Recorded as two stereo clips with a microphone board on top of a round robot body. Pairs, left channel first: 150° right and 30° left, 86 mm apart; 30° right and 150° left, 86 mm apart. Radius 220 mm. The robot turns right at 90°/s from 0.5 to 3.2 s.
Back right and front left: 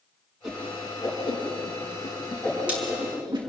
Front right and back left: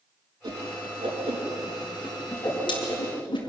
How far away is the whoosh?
About 5 m.